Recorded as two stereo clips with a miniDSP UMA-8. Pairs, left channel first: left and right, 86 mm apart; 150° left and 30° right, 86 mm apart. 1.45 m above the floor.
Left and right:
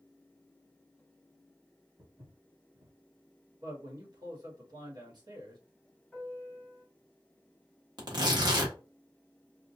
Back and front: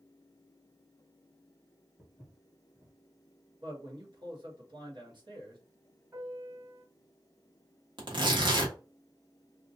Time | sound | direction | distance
2.0 | footsteps | 100° right | 1.7 m
3.6 | a man speaking | 55° right | 1.3 m
6.1 | a piano | 5° left | 1.5 m
8.0 | tearing paper | 55° right | 1.0 m